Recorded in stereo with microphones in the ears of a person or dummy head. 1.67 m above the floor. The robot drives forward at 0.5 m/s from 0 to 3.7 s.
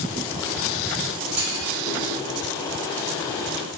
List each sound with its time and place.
1.4 s a clunk: 40° right (ahead or behind), 5 m; by 2.0 s 35° right (ahead or behind), 5 m